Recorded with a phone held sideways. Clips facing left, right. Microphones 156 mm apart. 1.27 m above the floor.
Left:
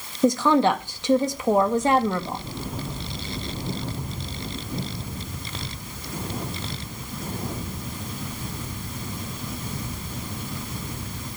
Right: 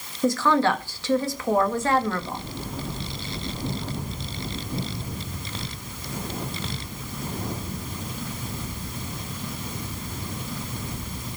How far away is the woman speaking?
About 1.7 m.